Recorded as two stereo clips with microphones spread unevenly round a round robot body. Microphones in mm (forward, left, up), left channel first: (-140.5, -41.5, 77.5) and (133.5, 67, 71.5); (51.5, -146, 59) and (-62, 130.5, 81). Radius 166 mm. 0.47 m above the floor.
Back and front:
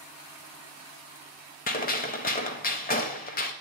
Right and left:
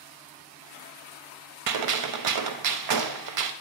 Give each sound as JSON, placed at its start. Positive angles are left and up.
{"t": 1.7, "sound": "a gunshot", "azimuth_deg": 140, "distance_m": 0.8}